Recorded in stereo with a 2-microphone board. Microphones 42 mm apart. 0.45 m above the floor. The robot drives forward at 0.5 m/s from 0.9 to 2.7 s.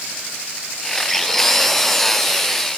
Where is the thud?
I don't hear a thud.